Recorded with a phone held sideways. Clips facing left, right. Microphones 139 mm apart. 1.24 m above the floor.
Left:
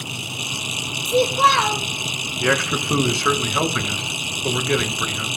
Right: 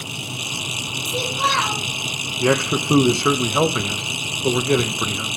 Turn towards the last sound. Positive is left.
turn(degrees=-20)  # may be behind; listen again after turning